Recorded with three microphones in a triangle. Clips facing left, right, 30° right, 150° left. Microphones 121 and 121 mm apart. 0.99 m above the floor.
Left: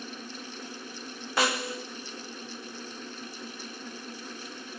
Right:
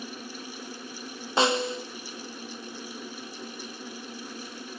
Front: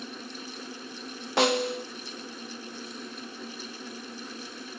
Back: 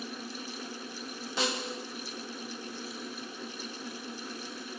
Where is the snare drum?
25° right, 1.4 m.